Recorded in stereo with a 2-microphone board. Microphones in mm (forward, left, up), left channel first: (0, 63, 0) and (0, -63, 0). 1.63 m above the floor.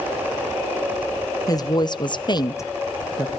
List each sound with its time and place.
1.5 s a woman speaking: 30° left (ahead or behind), 1.2 m; by 3.3 s centre (ahead or behind), 1.2 m